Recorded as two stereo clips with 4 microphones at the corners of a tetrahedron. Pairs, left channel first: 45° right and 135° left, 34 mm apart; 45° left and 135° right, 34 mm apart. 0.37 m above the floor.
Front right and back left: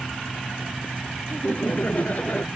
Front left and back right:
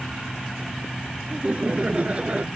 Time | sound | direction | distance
1.3 | laughter | 85° right | ?